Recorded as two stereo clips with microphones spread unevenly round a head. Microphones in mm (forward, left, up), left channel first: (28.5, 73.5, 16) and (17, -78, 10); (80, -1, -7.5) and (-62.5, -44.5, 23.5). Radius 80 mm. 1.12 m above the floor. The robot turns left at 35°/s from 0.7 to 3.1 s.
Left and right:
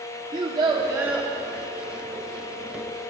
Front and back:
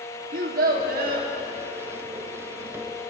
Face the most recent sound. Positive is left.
turn(degrees=115)